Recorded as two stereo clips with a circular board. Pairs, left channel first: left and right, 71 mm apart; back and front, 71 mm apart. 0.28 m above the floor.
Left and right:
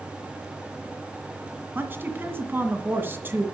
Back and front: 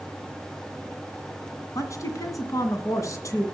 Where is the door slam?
I don't hear a door slam.